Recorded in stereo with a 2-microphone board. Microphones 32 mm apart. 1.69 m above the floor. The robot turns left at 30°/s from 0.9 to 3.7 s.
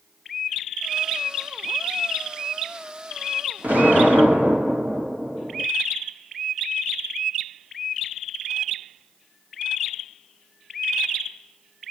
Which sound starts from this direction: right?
An explosion, at 3.6 s.